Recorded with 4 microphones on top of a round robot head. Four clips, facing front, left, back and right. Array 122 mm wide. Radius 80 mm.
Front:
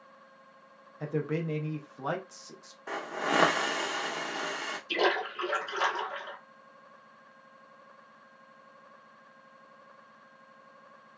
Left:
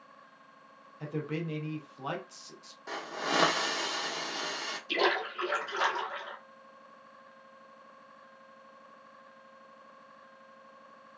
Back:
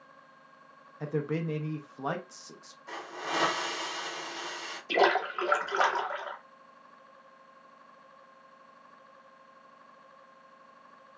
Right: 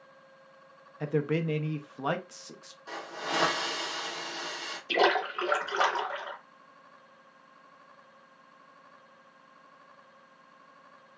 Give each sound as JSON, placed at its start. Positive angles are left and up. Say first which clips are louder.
{"t": 1.0, "sound": "a man speaking", "louder": "right 7 dB, even", "azimuth_deg": -100, "distance_m": 0.6}
{"t": 2.9, "sound": "a hiss", "louder": "left 2 dB, front 5 dB", "azimuth_deg": 20, "distance_m": 0.6}
{"t": 4.9, "sound": "a splash", "louder": "right 4 dB, back 4 dB", "azimuth_deg": -150, "distance_m": 0.8}